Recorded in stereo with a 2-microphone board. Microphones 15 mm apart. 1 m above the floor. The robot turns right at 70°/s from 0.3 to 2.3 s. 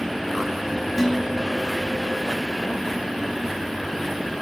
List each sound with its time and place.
1.0 s dishes clattering: 175° left, 3 m; by 1.7 s 135° right, 3 m